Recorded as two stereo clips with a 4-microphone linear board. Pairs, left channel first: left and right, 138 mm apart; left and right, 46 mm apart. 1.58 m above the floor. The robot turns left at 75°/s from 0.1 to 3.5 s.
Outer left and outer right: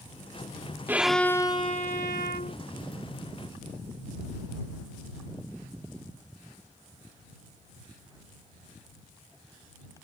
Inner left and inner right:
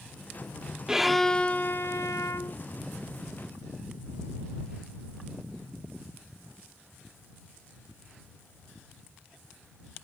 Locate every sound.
0.9 s a violin: 165° right; by 2.6 s 70° left